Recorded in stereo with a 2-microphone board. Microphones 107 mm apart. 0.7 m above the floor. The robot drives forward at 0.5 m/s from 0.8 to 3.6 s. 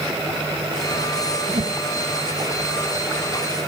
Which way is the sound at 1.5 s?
60° right (ahead or behind).